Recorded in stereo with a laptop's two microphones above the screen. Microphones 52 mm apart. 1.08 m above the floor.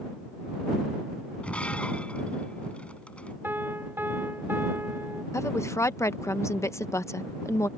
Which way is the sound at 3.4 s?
45° right (ahead or behind).